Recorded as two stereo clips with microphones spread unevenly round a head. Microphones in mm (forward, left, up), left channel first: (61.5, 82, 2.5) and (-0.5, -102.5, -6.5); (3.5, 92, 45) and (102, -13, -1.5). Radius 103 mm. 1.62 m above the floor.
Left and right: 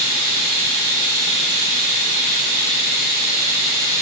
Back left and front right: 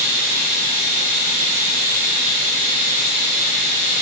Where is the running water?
140° right, 2 m.